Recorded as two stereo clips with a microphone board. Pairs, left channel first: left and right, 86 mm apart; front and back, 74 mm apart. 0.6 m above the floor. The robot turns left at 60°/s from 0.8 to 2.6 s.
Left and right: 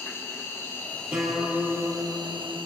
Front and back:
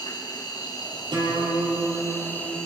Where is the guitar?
165° right, 8 m; by 2.6 s 105° left, 8 m.